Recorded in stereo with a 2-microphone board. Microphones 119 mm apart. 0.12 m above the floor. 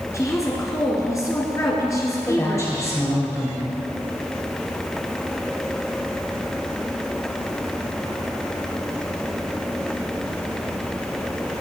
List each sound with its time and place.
0.1 s a woman speaking: 25° left (ahead or behind), 1.3 m
2.3 s a woman speaking: 25° left (ahead or behind), 3.5 m